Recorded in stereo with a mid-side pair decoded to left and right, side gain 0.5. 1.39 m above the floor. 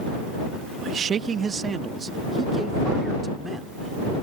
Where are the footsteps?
I don't hear footsteps.